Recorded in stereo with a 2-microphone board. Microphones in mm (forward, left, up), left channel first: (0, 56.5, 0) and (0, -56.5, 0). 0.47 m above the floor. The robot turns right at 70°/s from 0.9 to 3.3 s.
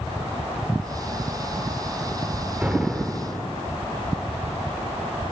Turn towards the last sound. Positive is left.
turn(degrees=30)